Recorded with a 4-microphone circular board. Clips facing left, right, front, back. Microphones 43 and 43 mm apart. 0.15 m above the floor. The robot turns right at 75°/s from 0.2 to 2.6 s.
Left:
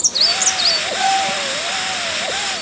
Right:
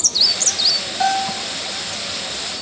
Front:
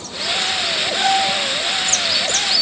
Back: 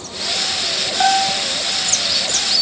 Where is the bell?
Straight behind, 6.5 m; by 1.4 s 150° right, 6.5 m.